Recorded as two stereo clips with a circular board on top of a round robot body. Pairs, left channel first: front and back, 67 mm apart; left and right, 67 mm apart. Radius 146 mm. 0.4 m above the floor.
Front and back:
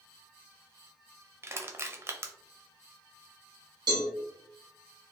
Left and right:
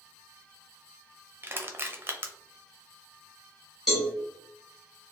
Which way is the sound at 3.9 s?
Straight behind.